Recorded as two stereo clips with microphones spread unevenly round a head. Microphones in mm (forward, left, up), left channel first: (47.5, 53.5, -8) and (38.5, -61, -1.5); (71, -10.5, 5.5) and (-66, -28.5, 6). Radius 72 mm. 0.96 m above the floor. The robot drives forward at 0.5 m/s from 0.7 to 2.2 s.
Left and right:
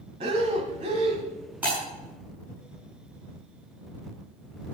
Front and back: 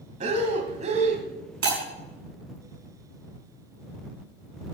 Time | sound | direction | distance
0.2 | breathing | 135° right | 1.6 m
1.6 | breaking glass | 175° right | 6 m